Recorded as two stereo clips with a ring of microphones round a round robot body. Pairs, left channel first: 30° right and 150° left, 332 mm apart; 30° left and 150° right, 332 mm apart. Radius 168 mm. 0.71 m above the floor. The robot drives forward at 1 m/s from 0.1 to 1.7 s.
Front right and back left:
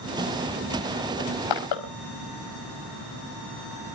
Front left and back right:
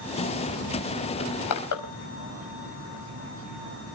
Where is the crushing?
10° right, 4.5 m.